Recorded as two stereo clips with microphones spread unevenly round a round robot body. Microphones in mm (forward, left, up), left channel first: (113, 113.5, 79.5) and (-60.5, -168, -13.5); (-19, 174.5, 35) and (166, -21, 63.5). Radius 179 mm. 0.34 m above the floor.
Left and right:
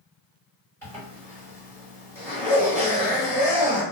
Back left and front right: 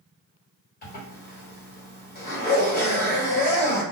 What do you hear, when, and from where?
0.8 s a zipper: 155° left, 1.3 m